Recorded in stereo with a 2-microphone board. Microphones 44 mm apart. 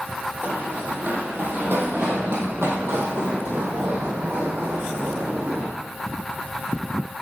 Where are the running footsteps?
35° right (ahead or behind), 3 m; by 5.7 s 70° right (ahead or behind), 4.5 m.